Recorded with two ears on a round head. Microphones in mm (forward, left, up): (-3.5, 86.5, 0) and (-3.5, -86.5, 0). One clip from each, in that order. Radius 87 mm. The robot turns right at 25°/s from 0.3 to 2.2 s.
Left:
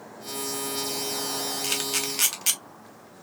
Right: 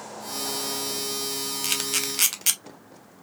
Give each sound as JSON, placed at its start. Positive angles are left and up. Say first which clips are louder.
{"t": 1.6, "sound": "a camera shutter", "louder": "right 3 dB", "side_deg": -15, "distance_m": 0.6}